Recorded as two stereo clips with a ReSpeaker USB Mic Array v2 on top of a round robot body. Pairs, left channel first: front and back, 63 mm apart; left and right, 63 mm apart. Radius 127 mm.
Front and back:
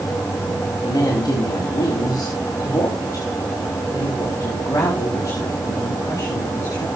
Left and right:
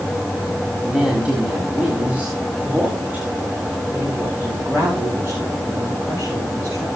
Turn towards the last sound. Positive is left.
turn(degrees=-40)